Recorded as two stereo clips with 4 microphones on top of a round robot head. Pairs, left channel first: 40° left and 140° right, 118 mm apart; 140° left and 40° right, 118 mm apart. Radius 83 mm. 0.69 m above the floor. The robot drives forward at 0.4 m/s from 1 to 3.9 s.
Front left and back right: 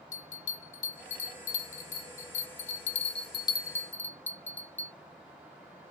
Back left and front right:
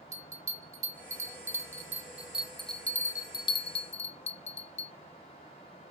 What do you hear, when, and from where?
0.1 s a bell: 20° left, 1.1 m; by 4.9 s 115° left, 0.5 m